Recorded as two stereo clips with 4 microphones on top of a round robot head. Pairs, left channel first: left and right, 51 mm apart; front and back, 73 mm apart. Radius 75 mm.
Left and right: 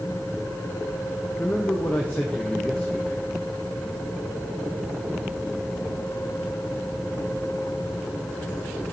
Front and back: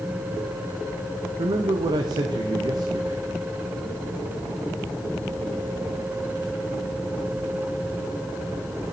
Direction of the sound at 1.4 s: 160° left.